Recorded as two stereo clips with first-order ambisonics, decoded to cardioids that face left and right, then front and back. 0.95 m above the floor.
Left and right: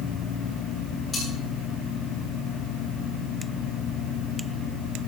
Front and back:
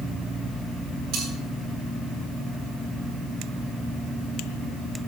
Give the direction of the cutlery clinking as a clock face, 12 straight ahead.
7 o'clock.